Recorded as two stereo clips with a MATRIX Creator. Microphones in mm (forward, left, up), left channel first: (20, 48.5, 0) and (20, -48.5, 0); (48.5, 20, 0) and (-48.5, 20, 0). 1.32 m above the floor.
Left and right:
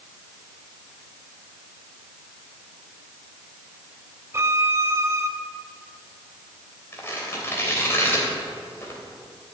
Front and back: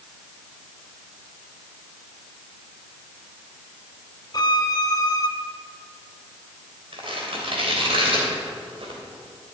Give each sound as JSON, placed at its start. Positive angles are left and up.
{"t": 4.3, "sound": "a violin", "azimuth_deg": -35, "distance_m": 1.0}
{"t": 6.9, "sound": "tearing paper", "azimuth_deg": 155, "distance_m": 3.0}